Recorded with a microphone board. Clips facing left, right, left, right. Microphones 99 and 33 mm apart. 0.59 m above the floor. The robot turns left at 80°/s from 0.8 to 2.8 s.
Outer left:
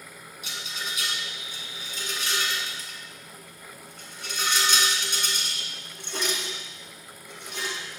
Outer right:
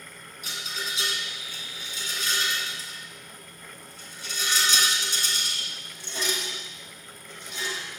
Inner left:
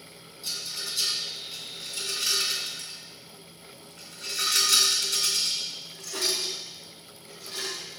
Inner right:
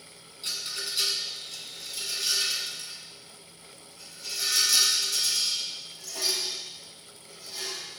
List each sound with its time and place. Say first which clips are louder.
0.4 s a rattle: outer right 1 dB, inner right 1 dB; 40° right (ahead or behind), 1.9 m; by 7.8 s 60° left (ahead or behind), 1.9 m